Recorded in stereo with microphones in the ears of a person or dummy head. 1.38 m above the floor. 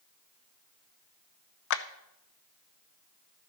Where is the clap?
65° left (ahead or behind), 0.7 m.